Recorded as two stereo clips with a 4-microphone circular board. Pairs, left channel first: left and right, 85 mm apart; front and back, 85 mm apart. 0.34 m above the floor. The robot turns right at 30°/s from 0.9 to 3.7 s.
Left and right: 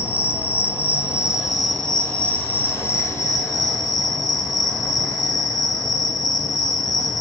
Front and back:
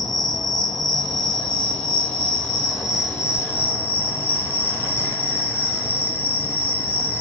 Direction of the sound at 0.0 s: 25° right.